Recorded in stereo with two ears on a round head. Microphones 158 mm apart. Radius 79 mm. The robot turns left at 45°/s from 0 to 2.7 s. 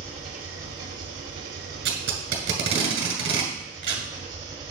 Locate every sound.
0.0 s an engine running: 35° right, 1.8 m; by 4.7 s 155° right, 1.8 m
1.9 s tape being pulled: 75° right (ahead or behind), 1.9 m; by 4.1 s 35° right (ahead or behind), 1.9 m